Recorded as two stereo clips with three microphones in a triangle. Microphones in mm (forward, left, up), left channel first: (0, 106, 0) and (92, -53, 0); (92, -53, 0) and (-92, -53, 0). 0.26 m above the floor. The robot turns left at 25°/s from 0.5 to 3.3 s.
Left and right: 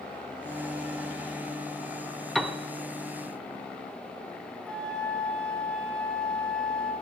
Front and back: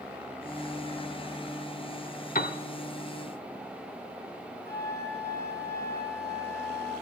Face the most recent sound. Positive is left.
turn(degrees=-155)